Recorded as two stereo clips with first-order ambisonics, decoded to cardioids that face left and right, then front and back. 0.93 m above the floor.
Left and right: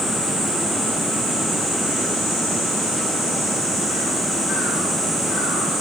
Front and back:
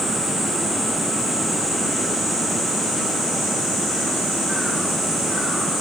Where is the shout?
No shout in this recording.